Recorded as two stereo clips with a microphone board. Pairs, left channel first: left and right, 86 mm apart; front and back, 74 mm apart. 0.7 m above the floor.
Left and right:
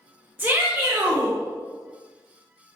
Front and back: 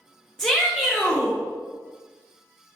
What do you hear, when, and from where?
0.4 s a shout: 75° right, 0.6 m